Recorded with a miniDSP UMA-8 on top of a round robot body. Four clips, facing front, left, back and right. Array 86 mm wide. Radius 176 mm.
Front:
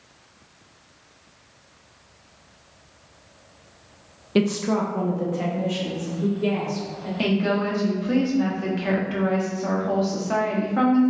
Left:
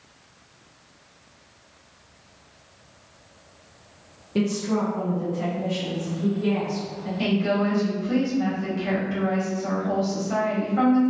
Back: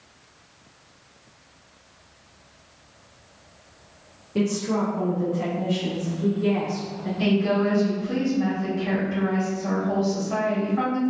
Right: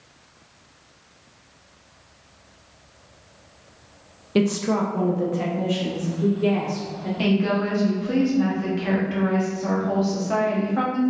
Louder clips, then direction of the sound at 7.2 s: Right 1 dB, back 1 dB; 30° right.